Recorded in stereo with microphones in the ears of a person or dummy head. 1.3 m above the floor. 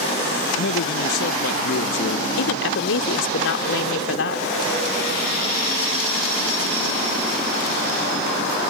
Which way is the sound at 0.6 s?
70° left (ahead or behind).